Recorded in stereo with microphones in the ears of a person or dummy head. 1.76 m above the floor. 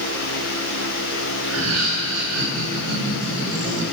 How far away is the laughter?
About 6.5 m.